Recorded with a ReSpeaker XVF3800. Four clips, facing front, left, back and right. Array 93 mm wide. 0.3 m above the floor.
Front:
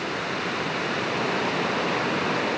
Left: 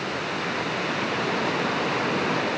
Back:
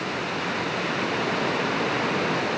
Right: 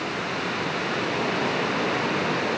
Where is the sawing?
No sawing in this recording.